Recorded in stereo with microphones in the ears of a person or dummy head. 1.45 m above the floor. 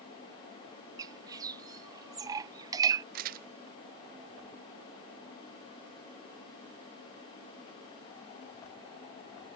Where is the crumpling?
50° right (ahead or behind).